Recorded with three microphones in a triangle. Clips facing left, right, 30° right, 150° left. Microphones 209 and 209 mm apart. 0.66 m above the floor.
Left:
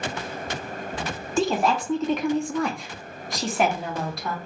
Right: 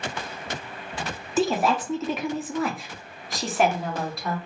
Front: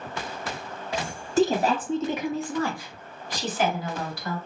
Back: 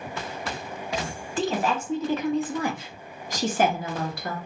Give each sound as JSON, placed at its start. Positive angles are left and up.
{"t": 1.4, "sound": "a woman speaking", "azimuth_deg": -5, "distance_m": 0.9}